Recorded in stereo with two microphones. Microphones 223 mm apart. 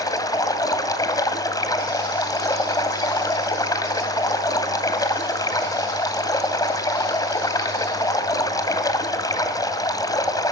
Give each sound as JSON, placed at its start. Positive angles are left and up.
{"t": 0.0, "sound": "running water", "side_deg": 15, "distance_m": 1.7}